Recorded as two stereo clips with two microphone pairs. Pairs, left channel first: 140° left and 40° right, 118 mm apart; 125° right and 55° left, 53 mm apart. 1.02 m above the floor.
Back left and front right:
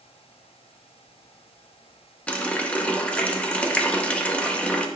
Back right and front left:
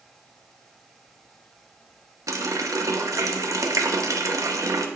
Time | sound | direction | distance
2.3 | a running tap | 60° left | 0.8 m